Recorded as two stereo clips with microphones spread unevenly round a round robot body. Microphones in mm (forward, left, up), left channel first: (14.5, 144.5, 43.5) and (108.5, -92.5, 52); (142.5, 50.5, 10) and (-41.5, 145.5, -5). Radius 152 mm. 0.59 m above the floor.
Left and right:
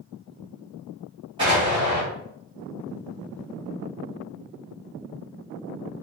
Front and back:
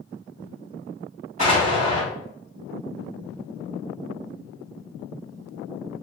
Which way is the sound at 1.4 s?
140° right.